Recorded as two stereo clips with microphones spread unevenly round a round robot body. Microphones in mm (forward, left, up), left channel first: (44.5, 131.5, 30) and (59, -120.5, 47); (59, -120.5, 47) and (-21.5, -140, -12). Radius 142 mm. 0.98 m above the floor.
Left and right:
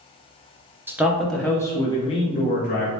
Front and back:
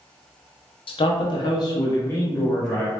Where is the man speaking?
5° right, 0.8 m; by 2.9 s 130° left, 1.1 m.